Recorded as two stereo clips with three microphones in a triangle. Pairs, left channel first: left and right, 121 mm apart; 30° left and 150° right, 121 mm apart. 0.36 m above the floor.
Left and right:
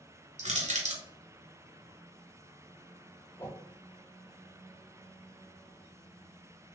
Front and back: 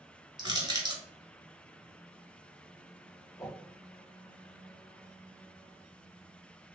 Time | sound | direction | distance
0.4 | crushing | 95° right | 1.3 m
3.4 | a whoosh | 30° left | 0.8 m